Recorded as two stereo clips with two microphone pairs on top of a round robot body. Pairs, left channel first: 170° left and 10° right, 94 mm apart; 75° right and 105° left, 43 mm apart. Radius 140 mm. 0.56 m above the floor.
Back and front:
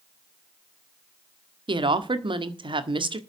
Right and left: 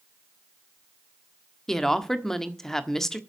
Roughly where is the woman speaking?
Ahead.